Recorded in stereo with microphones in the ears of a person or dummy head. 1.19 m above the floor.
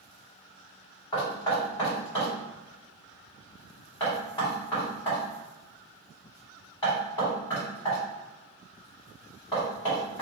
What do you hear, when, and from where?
1.1 s knocking: 25° left (ahead or behind), 1.8 m